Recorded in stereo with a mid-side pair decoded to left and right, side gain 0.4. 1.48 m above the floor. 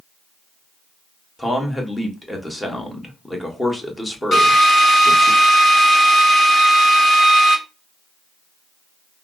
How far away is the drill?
About 1.7 m.